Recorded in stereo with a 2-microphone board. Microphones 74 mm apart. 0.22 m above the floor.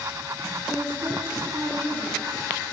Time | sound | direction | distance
0.7 | a woman speaking | 15° right (ahead or behind) | 3 m